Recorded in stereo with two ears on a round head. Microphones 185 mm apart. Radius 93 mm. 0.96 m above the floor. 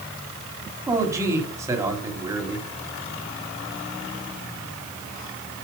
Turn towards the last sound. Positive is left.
turn(degrees=-15)  # may be behind; listen again after turning